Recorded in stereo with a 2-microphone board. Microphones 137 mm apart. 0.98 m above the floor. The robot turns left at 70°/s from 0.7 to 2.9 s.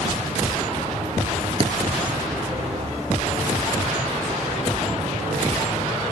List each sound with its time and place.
1.6 s a thud: 40° right (ahead or behind); by 1.7 s 50° right (ahead or behind)